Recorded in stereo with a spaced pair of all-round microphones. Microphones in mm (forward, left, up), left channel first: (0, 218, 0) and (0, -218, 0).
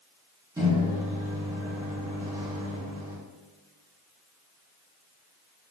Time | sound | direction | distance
0.6 | a microwave | 10° right (ahead or behind) | 3 m